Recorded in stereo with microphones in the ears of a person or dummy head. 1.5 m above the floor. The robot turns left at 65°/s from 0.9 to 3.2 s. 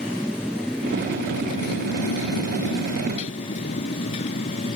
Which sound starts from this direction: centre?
A motorcycle, at 0.0 s.